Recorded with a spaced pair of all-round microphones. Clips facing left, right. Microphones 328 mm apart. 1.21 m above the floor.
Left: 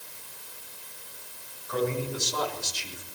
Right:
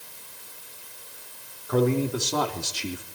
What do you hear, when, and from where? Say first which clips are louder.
1.7 s a man speaking: right 6 dB; 65° right (ahead or behind), 3.5 m; by 3.0 s 75° right (ahead or behind), 2.5 m